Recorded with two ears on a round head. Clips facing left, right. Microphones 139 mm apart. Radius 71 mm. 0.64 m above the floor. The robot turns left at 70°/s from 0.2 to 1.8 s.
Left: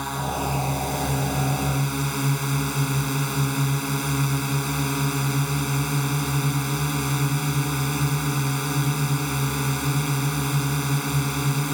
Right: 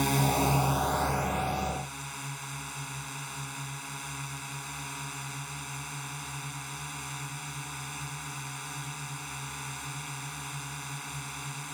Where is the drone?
155° right; by 11.8 s 95° left.